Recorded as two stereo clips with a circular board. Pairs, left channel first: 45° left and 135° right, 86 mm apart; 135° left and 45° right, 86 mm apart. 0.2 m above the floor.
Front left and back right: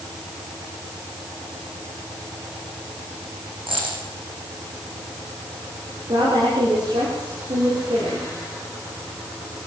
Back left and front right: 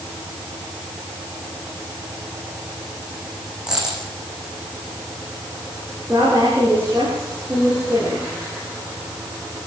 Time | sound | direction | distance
3.7 | a dropped coin | 125° right | 7 m
6.1 | a woman speaking | 110° right | 9.5 m